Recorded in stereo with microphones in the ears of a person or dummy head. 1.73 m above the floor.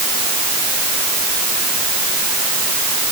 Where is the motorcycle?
I don't hear a motorcycle.